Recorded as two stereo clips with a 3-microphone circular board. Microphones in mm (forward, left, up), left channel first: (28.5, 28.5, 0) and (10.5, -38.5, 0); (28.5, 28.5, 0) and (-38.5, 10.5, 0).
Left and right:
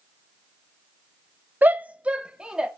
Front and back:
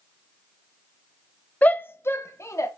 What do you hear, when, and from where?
1.6 s a shout: 50° right, 0.8 m; by 2.7 s 25° right, 1.6 m